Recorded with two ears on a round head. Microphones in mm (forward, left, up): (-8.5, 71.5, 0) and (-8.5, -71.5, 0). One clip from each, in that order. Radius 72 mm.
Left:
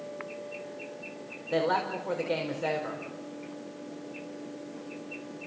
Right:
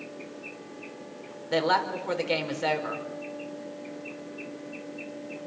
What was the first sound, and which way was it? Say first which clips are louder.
A woman speaking: right 3 dB; 55° right (ahead or behind).